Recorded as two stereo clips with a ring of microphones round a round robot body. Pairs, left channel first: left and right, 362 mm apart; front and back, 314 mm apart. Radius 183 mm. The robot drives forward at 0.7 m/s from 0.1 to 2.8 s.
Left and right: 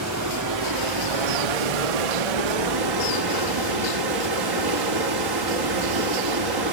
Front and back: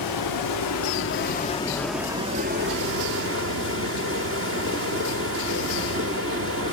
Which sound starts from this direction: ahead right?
Running water, at 0.0 s.